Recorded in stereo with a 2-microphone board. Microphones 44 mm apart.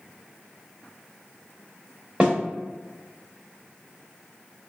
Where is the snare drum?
20° right (ahead or behind), 0.9 m.